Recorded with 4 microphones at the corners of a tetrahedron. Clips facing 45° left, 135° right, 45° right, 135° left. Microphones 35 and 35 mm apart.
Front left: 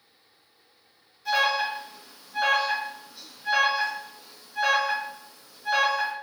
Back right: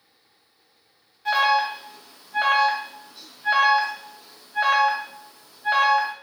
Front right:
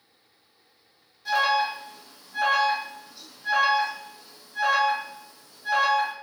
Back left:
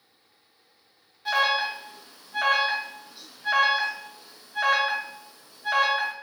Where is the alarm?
170° right, 0.8 m.